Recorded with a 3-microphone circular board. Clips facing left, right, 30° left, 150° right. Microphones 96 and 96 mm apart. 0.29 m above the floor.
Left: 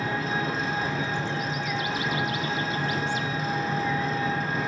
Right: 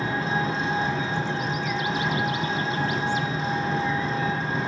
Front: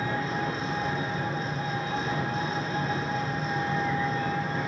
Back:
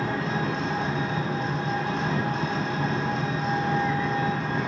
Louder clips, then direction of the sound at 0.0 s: Right 2 dB, back 2 dB; 150° right.